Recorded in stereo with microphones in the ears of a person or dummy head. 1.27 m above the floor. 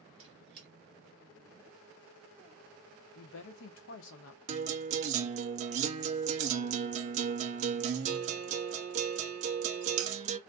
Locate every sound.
0.2 s a squeak: 35° right (ahead or behind), 1.1 m
3.1 s a woman speaking: 70° left (ahead or behind), 0.7 m
4.5 s a guitar: 40° right (ahead or behind), 0.5 m